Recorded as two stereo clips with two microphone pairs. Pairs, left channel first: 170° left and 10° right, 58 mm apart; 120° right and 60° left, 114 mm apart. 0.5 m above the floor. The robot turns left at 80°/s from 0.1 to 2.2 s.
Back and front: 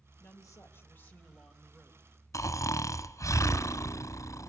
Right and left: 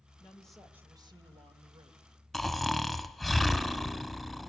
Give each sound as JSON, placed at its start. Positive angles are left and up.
{"t": 0.2, "sound": "a woman speaking", "azimuth_deg": 175, "distance_m": 3.0}
{"t": 2.3, "sound": "snoring", "azimuth_deg": 150, "distance_m": 0.9}